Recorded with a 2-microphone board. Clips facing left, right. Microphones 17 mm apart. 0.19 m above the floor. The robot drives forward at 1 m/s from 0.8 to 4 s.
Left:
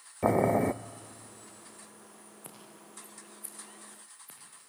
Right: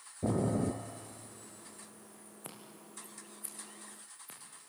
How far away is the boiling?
About 0.6 m.